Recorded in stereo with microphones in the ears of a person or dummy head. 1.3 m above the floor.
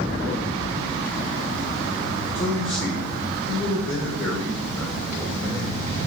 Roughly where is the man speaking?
Centre.